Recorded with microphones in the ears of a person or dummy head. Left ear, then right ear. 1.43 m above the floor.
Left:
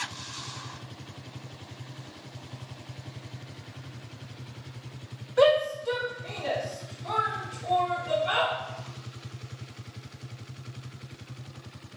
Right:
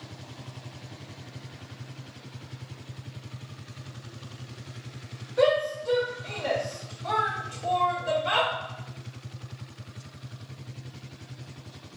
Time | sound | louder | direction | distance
5.4 | a shout | left 2 dB | 40° left (ahead or behind) | 0.9 m